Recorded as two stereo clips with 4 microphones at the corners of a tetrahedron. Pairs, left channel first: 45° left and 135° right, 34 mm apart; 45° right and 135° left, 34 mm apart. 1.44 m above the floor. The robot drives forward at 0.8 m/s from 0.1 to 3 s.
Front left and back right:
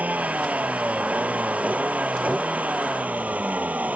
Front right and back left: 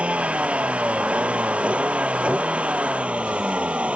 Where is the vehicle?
175° right.